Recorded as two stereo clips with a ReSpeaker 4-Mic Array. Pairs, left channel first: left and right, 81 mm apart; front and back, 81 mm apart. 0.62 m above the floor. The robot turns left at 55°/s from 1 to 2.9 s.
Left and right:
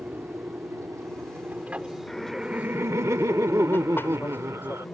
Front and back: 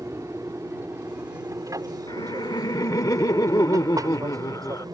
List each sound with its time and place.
0.0 s an aircraft: 135° right; by 5.0 s 155° left
2.1 s laughter: 10° left; by 4.9 s 35° right